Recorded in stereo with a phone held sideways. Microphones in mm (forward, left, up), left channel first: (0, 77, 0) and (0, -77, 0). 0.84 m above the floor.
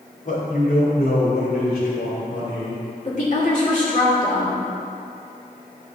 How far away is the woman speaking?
About 2.5 m.